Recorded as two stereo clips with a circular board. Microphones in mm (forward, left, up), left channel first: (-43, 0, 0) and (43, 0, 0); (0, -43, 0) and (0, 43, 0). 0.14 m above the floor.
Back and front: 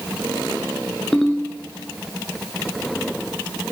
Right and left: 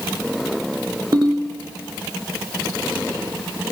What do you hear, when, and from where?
1.1 s a ringtone: 95° left, 0.9 m